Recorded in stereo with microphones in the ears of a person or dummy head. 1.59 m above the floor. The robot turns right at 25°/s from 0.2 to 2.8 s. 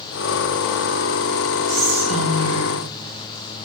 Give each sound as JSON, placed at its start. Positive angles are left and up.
{"t": 1.7, "sound": "whispering", "side_deg": -45, "distance_m": 1.2}